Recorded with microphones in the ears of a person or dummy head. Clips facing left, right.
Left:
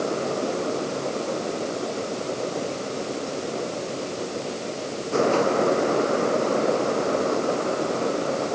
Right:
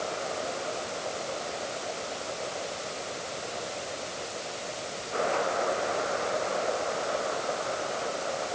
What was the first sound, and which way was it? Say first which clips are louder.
A fan: left 8 dB; 55° left (ahead or behind).